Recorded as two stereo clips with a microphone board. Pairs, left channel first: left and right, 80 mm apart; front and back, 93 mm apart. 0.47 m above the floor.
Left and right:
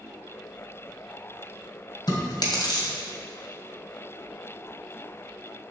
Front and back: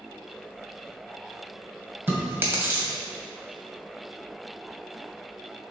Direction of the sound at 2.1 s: 115° left.